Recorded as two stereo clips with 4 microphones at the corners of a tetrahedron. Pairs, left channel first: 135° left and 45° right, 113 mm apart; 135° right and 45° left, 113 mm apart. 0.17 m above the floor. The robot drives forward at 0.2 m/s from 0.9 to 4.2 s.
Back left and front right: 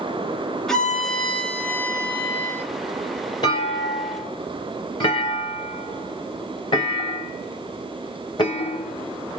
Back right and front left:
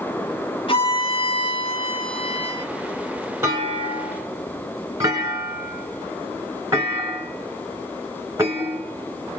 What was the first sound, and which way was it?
A violin, 140° right.